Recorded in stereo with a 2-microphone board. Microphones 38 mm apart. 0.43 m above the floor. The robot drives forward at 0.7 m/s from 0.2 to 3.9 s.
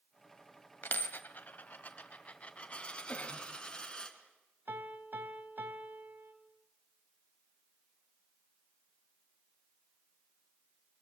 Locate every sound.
0.8 s a dropped coin: 70° left (ahead or behind), 1.1 m; by 4.1 s 25° left (ahead or behind), 2.5 m
3.1 s a cough: 45° left (ahead or behind), 2.5 m; by 3.5 s 40° left (ahead or behind), 2.5 m
4.7 s a piano: 65° right (ahead or behind), 1.8 m